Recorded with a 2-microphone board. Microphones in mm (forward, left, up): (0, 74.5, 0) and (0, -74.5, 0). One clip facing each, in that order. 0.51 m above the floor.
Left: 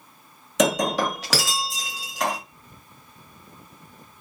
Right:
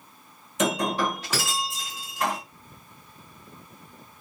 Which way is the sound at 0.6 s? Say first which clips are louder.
Left 4 dB; 80° left.